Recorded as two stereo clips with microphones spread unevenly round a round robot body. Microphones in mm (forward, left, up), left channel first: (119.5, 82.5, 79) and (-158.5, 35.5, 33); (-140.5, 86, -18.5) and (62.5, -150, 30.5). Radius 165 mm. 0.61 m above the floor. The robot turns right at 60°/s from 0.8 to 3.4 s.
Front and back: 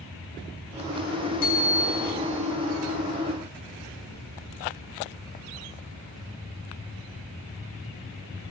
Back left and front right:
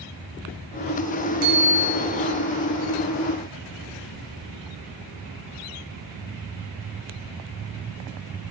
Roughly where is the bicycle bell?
Ahead right.